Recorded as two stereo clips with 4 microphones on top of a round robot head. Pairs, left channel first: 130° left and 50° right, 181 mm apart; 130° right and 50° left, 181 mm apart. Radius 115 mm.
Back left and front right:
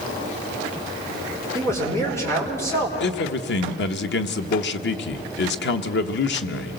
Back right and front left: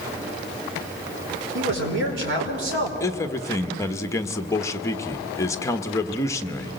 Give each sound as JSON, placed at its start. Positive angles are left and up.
{"t": 1.6, "sound": "a man speaking", "azimuth_deg": 55, "distance_m": 5.0}
{"t": 3.0, "sound": "a man speaking", "azimuth_deg": 155, "distance_m": 1.2}